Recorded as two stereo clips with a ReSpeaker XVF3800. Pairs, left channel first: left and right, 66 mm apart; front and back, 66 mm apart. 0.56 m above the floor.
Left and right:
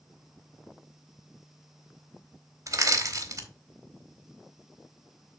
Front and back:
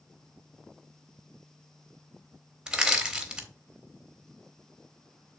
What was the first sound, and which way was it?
Crushing, 105° right.